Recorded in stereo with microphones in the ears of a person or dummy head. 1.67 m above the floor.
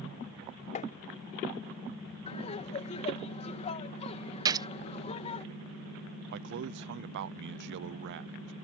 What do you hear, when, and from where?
0.8 s tapping: 45° left (ahead or behind)
2.3 s laughter: 40° left (ahead or behind)
4.5 s a gunshot: 25° right (ahead or behind)
6.3 s a man speaking: 60° right (ahead or behind)